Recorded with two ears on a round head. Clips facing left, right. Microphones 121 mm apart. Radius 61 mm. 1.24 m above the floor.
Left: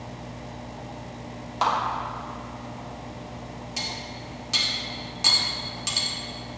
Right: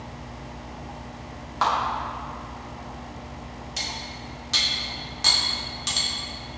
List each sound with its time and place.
1.6 s a clap: 25° left (ahead or behind), 3 m
3.8 s cutlery clinking: 10° left (ahead or behind), 2.5 m